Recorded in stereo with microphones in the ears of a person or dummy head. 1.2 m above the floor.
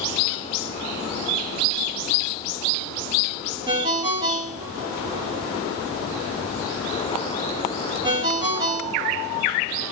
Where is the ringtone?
20° right (ahead or behind), 1.0 m.